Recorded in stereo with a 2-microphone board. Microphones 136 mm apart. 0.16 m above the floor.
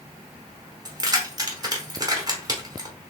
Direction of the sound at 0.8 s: 30° right (ahead or behind).